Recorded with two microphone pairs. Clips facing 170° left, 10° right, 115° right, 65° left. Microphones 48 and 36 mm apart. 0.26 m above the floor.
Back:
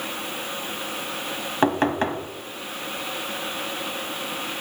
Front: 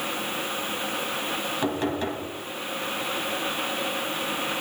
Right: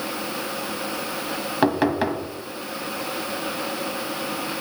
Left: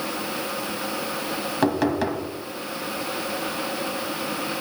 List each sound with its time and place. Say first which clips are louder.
1.6 s knocking: back 8 dB, right 2 dB; straight behind, 1.6 m